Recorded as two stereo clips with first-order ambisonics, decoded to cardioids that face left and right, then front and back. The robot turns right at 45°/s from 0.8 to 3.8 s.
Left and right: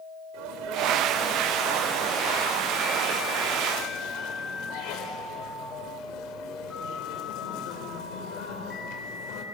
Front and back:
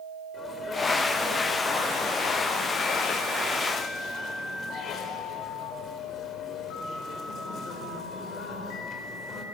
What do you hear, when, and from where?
0.3 s a sneeze: 75° right, 4.5 m; by 9.4 s 60° left, 4.5 m